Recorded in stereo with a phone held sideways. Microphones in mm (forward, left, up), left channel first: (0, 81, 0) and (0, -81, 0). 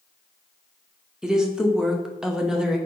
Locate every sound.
1.2 s a woman speaking: 5° right (ahead or behind), 0.6 m